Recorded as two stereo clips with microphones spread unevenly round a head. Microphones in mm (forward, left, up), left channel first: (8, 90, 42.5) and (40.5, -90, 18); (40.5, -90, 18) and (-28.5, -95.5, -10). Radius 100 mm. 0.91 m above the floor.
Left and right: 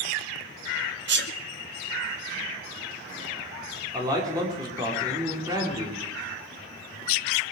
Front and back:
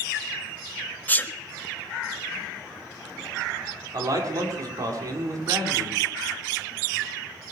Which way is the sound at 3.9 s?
150° right.